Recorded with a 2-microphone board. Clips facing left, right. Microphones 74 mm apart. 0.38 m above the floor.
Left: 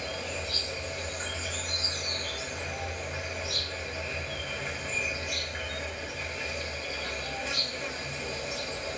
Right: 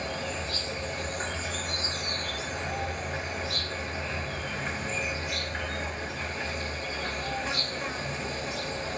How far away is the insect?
About 0.8 m.